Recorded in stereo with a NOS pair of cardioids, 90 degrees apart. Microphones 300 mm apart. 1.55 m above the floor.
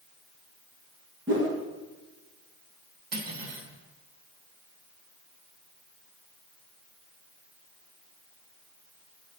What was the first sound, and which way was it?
A whoosh, 40° right.